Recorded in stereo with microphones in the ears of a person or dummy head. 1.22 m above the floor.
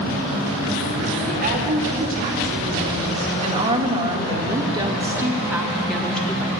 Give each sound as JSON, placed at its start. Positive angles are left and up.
{"t": 1.3, "sound": "a woman speaking", "side_deg": -40, "distance_m": 3.0}